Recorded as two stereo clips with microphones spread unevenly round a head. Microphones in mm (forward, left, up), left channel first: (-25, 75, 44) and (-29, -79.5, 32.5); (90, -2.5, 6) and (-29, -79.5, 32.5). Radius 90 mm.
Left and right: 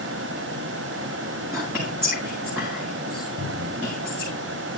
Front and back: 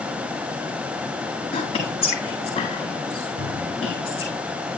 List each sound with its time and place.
1.5 s whispering: 10° right, 7.5 m
3.4 s a cupboard door: 135° right, 6 m